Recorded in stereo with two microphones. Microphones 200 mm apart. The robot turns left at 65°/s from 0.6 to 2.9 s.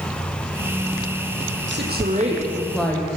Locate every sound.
1.7 s a woman speaking: 110° right, 7 m; by 3.1 s 170° left, 7 m